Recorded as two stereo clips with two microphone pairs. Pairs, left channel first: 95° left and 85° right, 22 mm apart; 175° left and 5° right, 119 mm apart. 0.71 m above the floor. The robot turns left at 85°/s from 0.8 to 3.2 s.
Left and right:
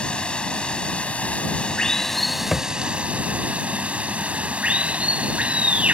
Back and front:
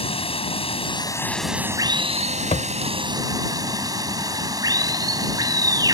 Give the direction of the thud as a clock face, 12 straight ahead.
6 o'clock.